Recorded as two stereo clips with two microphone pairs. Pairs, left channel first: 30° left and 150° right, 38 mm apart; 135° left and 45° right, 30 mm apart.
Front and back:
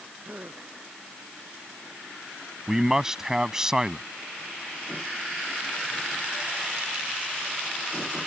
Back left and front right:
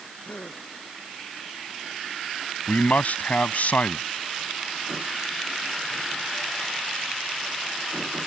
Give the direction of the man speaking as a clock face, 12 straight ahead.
7 o'clock.